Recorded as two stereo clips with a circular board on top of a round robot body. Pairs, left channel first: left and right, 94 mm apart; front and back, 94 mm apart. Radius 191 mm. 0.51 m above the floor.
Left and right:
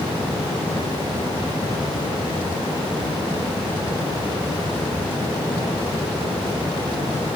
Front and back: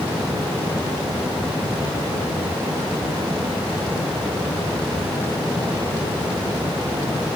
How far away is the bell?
No bell in this recording.